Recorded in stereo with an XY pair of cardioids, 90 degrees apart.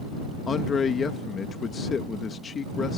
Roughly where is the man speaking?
Ahead left.